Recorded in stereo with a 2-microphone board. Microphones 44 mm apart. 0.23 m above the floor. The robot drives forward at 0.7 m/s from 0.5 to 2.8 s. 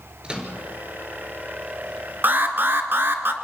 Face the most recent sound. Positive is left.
turn(degrees=-50)  # may be behind; listen again after turning